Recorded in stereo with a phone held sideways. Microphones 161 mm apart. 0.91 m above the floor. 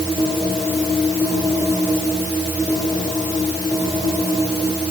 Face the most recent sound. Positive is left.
No sound to turn to.